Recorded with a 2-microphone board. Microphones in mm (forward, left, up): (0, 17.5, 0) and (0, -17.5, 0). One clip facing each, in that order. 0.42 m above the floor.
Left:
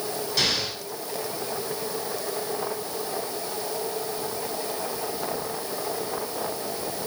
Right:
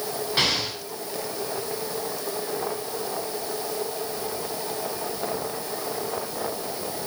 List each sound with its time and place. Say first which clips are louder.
0.4 s an explosion: right 2 dB; 35° right (ahead or behind), 7 m